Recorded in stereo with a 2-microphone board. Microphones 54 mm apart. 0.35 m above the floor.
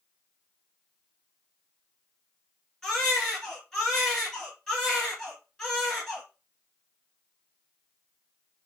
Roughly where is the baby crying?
Centre.